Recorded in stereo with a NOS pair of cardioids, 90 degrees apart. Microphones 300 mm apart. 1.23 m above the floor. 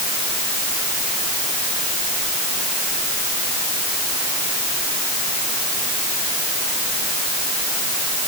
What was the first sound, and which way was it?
Only background noise.